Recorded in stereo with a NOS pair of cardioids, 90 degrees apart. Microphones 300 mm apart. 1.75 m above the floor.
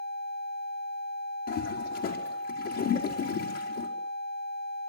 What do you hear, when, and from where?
1.5 s a toilet flushing: 60° left, 5 m